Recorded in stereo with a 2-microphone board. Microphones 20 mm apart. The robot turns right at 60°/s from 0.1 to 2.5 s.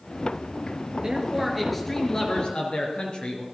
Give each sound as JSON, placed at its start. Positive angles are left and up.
{"t": 1.0, "sound": "a man speaking", "azimuth_deg": -35, "distance_m": 4.0}